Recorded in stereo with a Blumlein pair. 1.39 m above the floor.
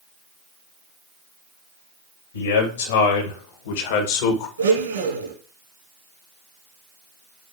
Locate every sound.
2.3 s a man speaking: 65° left, 3 m; by 4.5 s 50° left, 1.6 m
4.6 s a blender: 70° right, 2.5 m